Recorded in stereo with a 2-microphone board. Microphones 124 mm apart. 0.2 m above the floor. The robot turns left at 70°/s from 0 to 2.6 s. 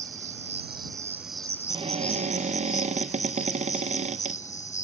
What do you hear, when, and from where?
0.0 s an insect: 85° right; by 4.8 s 95° left
1.7 s a cupboard door: 45° right; by 4.4 s 105° right